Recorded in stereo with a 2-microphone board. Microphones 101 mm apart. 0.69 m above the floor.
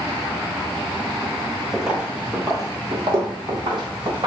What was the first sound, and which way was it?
Footsteps, centre (ahead or behind).